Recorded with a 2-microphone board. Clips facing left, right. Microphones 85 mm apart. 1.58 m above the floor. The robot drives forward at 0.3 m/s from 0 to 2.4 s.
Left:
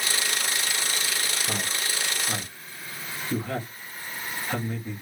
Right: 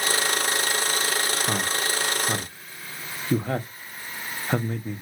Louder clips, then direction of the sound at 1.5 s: Right 5 dB; 45° right (ahead or behind).